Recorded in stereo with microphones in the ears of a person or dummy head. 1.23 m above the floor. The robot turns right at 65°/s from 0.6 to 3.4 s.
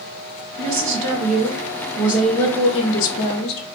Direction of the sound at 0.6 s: 95° right.